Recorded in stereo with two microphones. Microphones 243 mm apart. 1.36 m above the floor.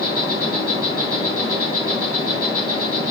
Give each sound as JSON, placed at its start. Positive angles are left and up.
{"t": 0.0, "sound": "an insect", "side_deg": 70, "distance_m": 3.0}